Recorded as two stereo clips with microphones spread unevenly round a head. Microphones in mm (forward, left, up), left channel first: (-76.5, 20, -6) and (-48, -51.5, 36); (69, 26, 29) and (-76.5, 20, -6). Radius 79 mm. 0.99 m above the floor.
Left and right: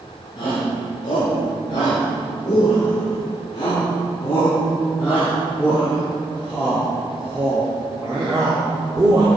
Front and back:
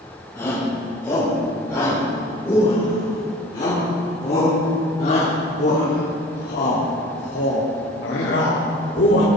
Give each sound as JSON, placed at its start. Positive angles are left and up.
{"t": 0.3, "sound": "a shout", "azimuth_deg": 75, "distance_m": 4.5}